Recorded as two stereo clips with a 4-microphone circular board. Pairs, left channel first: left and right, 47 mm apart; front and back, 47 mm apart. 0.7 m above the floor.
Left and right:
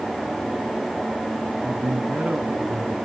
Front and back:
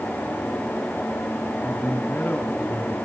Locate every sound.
1.6 s a man speaking: 40° right, 4.5 m